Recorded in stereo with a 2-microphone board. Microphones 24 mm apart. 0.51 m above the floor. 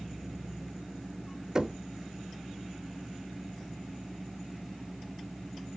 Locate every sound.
1.6 s knocking: 25° right (ahead or behind), 0.6 m